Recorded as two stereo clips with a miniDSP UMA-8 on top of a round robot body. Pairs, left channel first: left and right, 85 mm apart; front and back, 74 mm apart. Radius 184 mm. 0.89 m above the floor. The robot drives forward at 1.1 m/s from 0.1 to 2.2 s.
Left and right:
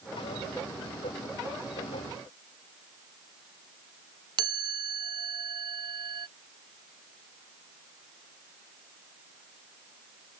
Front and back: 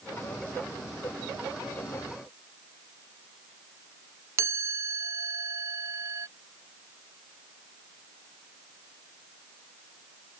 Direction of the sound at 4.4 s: 130° right.